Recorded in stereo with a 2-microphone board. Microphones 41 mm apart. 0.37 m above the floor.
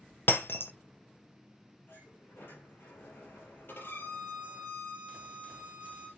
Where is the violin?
65° left (ahead or behind), 5 m.